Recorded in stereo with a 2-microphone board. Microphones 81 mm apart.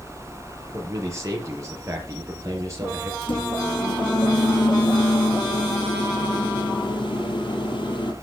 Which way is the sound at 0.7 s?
35° right (ahead or behind).